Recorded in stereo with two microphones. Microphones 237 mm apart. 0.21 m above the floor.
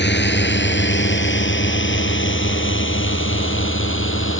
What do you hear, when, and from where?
0.0 s a drone: 50° left (ahead or behind); by 4.4 s 55° left (ahead or behind)